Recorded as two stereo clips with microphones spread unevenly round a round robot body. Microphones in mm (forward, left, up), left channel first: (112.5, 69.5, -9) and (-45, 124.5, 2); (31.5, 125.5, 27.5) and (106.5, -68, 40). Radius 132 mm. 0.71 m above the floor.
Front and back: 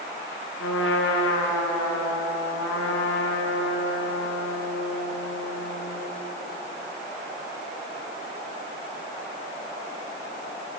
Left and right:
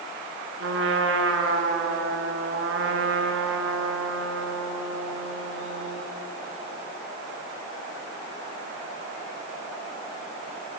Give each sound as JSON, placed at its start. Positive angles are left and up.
{"t": 0.6, "sound": "a trumpet", "azimuth_deg": -45, "distance_m": 5.0}